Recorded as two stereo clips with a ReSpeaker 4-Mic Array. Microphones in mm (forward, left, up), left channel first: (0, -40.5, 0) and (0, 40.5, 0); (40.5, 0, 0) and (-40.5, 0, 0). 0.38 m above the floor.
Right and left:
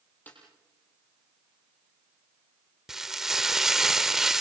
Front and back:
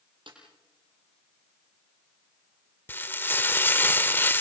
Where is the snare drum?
160° right, 8.5 m.